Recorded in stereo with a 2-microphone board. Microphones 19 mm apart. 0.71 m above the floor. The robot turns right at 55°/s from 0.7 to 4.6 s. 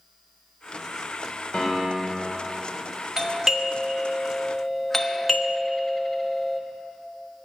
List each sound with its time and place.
1.5 s a piano: 70° left, 3 m; by 2.4 s 115° left, 3 m
3.2 s a doorbell: 25° right (ahead or behind), 1.1 m; by 6.6 s 15° left (ahead or behind), 1.1 m